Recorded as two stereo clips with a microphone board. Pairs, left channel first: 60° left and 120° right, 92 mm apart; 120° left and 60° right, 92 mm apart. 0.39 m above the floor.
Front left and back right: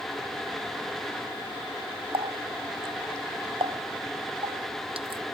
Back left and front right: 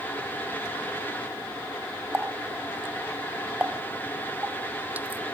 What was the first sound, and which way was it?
A running tap, 130° right.